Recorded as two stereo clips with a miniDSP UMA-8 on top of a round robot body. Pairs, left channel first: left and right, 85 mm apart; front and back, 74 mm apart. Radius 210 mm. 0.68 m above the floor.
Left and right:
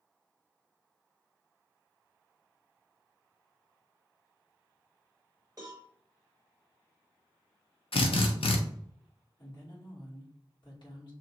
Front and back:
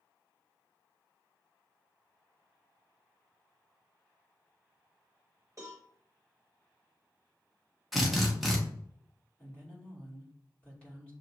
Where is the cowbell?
140° right, 0.5 m.